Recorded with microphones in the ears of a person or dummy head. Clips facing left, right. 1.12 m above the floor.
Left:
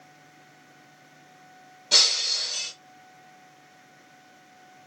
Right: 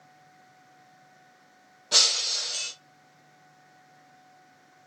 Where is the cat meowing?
I don't hear a cat meowing.